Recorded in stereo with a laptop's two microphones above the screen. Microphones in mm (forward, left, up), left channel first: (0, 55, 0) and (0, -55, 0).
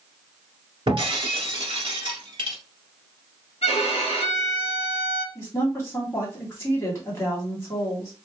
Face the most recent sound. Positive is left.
turn(degrees=25)  # may be behind; listen again after turning